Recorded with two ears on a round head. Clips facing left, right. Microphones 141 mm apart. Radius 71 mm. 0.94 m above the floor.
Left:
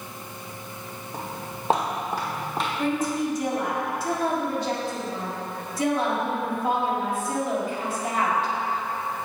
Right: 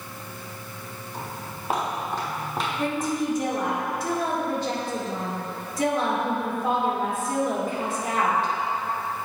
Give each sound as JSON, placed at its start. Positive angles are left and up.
{"t": 1.1, "sound": "footsteps", "side_deg": 40, "distance_m": 1.5}
{"t": 2.8, "sound": "a woman speaking", "side_deg": -40, "distance_m": 2.5}